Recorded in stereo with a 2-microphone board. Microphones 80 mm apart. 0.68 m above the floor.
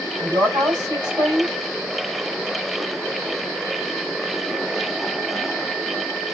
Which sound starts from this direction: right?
A woman speaking, at 0.2 s.